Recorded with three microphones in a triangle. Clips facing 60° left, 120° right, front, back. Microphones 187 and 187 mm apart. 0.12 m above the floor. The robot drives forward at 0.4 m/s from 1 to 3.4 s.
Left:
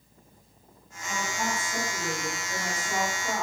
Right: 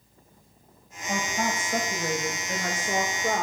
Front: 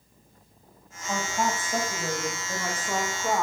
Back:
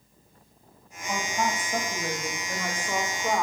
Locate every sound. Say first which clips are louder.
1.1 s a woman speaking: right 3 dB, front 1 dB; 75° right, 8 m; by 3.4 s 85° right, 8 m